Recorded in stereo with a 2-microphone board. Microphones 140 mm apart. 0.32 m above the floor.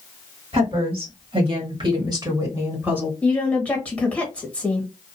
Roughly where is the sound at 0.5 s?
Right.